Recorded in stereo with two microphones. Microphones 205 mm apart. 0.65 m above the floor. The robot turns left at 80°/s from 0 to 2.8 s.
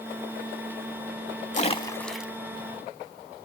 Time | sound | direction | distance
1.5 | a splash | 40° left (ahead or behind) | 0.7 m